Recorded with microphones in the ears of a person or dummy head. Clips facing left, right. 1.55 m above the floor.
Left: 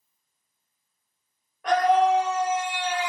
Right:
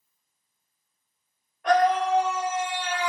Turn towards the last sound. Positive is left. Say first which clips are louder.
# left 1 dB
turn(degrees=75)  # may be behind; listen again after turning